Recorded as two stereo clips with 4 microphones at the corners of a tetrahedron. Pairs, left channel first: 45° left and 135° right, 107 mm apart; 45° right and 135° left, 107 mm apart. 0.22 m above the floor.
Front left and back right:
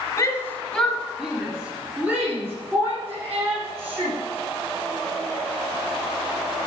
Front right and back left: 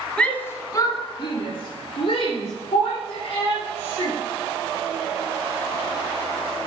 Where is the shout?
30° left, 1.1 m; by 4.2 s 70° right, 4.5 m.